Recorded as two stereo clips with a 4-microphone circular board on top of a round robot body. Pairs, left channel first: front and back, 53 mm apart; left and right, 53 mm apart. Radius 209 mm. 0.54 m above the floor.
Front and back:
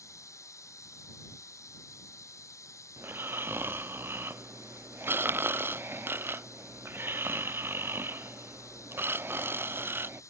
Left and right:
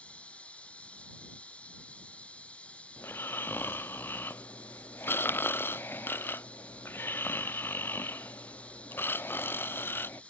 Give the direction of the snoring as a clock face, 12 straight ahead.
7 o'clock.